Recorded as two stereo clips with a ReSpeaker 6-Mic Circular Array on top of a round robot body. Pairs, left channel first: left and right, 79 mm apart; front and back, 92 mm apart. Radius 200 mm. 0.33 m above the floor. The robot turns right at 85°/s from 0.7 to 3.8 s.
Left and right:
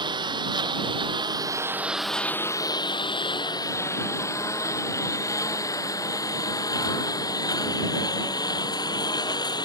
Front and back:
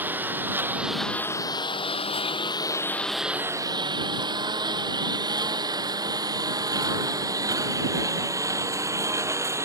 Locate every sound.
0.0 s a lawn mower: 110° right; by 9.7 s 120° left